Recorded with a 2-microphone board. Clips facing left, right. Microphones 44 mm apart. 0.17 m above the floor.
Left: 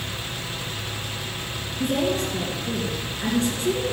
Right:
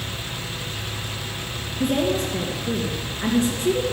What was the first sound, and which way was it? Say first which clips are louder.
A woman speaking: right 2 dB; 15° right (ahead or behind).